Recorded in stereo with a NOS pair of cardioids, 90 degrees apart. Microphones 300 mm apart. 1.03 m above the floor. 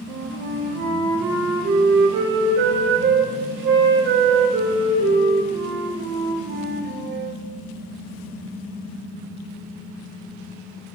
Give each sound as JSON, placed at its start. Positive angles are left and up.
{"t": 0.1, "sound": "a flute", "azimuth_deg": -40, "distance_m": 0.6}